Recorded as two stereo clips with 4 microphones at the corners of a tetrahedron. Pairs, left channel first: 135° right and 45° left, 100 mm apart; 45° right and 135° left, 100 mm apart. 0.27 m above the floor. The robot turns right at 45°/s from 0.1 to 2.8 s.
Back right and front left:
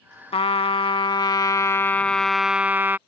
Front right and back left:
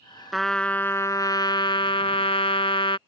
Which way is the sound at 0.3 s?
135° right.